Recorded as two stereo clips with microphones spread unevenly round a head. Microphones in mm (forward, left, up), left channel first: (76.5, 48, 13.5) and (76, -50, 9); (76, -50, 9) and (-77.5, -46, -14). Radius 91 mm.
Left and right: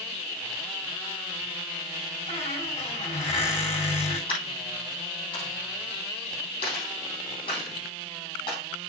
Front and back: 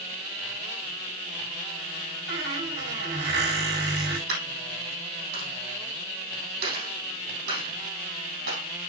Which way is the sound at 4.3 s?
140° left.